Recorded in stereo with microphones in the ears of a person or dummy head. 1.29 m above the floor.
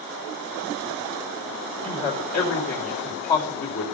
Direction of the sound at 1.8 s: 35° left (ahead or behind).